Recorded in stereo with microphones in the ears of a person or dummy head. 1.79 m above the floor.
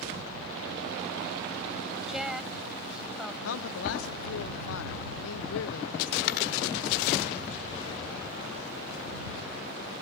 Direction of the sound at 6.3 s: 55° left (ahead or behind).